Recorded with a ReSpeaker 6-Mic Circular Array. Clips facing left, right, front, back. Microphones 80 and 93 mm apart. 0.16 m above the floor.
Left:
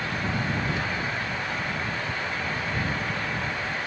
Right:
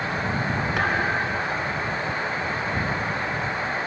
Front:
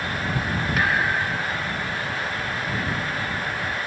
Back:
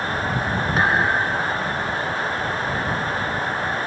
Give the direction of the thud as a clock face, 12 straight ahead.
4 o'clock.